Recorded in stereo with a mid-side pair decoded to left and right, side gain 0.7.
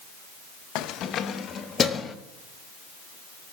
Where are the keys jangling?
65° left, 0.7 m; by 2.1 s 30° left, 1.5 m.